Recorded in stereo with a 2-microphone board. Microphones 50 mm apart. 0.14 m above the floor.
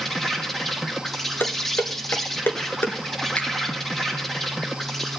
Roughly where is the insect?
Centre.